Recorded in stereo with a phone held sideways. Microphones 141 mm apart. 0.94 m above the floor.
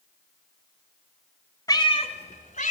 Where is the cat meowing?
25° left (ahead or behind), 1.1 m; by 2.7 s 65° left (ahead or behind), 1.8 m.